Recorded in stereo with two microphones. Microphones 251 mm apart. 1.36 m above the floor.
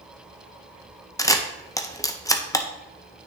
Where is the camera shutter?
15° left (ahead or behind), 0.6 m.